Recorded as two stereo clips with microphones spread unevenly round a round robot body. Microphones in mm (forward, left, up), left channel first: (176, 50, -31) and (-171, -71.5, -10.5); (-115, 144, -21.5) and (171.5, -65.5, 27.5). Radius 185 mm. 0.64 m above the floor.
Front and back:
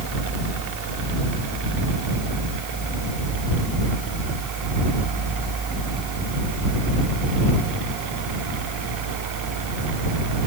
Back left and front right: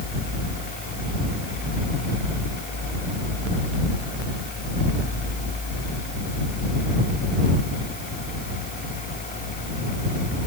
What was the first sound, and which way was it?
Only background noise.